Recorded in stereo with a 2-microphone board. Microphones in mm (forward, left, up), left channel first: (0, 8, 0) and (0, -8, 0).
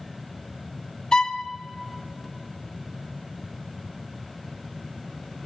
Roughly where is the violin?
Left.